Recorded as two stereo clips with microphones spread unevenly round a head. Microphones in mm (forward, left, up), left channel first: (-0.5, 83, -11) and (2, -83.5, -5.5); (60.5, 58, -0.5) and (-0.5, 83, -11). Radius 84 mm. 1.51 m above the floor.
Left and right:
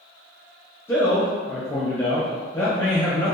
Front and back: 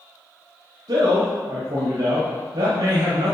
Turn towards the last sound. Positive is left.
turn(degrees=165)